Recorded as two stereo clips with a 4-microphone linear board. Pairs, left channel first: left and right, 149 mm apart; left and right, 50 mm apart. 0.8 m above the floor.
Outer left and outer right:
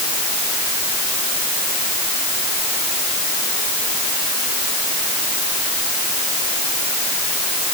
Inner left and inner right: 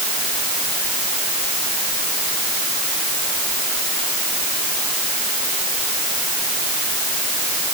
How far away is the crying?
No crying in this recording.